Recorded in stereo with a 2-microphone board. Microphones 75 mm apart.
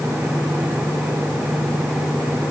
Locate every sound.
Only background noise.